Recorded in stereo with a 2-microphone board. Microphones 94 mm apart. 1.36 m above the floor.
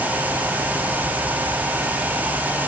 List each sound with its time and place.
Only background noise.